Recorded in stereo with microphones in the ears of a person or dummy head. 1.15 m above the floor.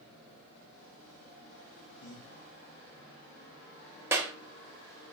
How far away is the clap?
About 0.7 m.